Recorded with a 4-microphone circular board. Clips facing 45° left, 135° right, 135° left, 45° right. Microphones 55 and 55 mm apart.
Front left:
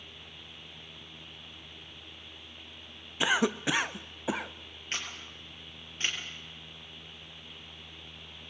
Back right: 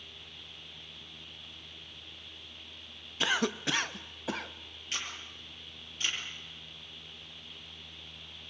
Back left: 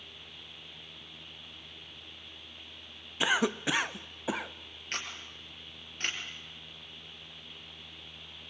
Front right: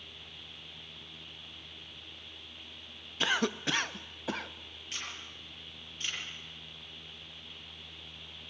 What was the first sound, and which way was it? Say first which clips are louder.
A cough: front left 3 dB, back left 2 dB; 90° left.